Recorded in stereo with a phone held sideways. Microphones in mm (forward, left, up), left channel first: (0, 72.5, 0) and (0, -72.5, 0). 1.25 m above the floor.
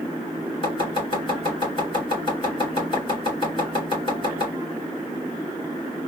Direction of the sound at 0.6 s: 35° left (ahead or behind).